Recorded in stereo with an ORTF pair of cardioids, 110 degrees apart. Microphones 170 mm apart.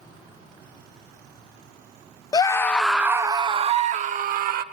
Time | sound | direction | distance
2.3 | a scream | 25° left | 0.7 m